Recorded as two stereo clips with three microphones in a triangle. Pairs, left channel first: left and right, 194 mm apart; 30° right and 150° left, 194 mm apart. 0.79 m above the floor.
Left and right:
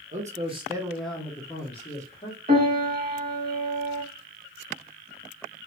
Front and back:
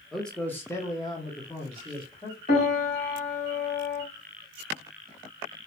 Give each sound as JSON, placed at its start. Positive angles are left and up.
{"t": 0.1, "sound": "a man speaking", "azimuth_deg": -120, "distance_m": 0.8}
{"t": 2.5, "sound": "a piano", "azimuth_deg": -50, "distance_m": 1.0}